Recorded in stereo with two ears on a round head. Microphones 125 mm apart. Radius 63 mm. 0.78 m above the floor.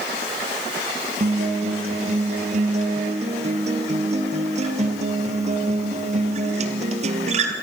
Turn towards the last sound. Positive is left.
turn(degrees=-55)  # may be behind; listen again after turning